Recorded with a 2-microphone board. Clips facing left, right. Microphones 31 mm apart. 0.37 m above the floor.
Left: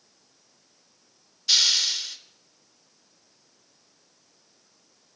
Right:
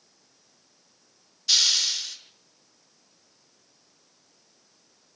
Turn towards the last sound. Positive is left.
turn(degrees=5)  # may be behind; listen again after turning